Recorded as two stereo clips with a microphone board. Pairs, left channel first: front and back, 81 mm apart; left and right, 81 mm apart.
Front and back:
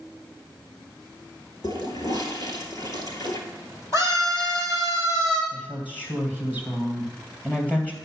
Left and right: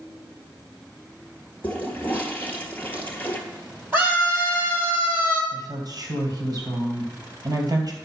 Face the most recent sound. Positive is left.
turn(degrees=-70)